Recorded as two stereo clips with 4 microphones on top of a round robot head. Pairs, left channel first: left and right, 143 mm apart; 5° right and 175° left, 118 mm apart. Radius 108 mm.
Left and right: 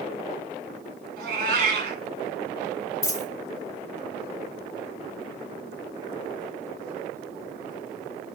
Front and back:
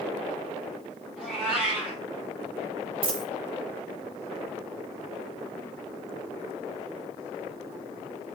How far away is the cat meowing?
About 1.4 m.